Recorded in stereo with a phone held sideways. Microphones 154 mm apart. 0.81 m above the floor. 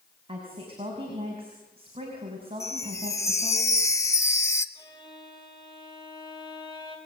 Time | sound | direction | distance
0.3 | a woman speaking | 35° right (ahead or behind) | 6 m
2.6 | a chime | 20° left (ahead or behind) | 1.0 m
4.8 | a violin | 30° left (ahead or behind) | 4.5 m